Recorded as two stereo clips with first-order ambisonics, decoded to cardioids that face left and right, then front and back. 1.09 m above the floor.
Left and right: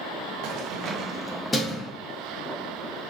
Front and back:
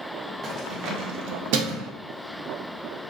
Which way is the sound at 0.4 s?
115° right.